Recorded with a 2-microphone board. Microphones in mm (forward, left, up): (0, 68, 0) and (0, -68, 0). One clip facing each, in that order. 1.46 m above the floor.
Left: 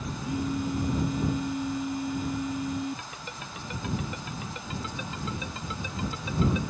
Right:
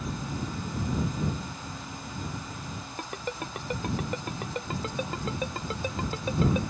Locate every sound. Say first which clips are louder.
0.2 s a phone buzzing: left 6 dB; 70° left (ahead or behind)
3.0 s a ringtone: right 6 dB; 45° right (ahead or behind)